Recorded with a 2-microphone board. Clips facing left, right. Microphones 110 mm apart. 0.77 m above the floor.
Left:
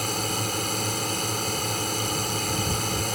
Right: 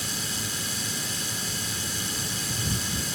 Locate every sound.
0.0 s a drone: 55° left (ahead or behind)